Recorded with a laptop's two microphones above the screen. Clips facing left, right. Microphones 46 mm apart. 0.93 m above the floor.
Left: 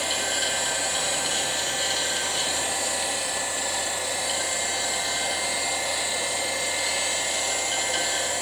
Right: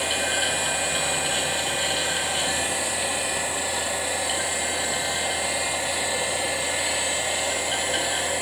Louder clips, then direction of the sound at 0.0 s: Right 2 dB; 20° right (ahead or behind).